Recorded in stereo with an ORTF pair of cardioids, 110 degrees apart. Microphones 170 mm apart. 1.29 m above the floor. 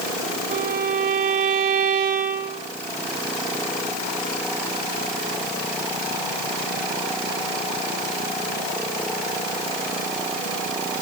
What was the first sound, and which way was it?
A violin, 60° right.